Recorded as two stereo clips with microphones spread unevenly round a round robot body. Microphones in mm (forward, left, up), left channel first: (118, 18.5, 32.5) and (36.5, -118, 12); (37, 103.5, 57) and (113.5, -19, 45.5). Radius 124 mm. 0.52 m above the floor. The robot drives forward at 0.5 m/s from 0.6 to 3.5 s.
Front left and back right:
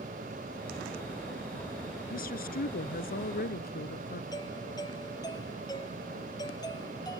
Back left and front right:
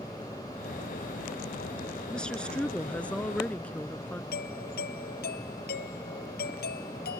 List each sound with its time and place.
2.1 s a woman speaking: 40° left
4.3 s a doorbell: 135° left